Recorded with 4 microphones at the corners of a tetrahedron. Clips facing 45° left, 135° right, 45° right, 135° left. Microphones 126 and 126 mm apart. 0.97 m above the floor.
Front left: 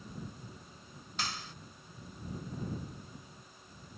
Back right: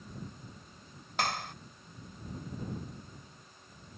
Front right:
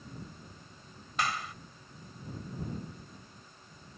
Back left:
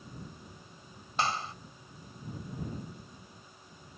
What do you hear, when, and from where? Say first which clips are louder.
1.2 s a clap: back right 8 dB, back left 2 dB; 165° right